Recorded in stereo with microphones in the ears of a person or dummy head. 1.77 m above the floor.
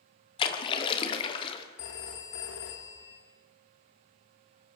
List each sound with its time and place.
0.4 s a splash: 30° left (ahead or behind), 1.5 m
1.8 s a phone ringing: 65° left (ahead or behind), 2.5 m